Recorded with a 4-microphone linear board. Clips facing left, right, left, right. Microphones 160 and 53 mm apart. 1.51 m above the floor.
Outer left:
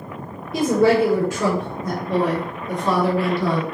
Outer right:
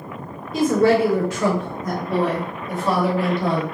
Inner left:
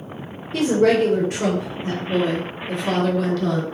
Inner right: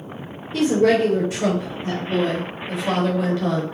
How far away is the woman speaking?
About 1.2 m.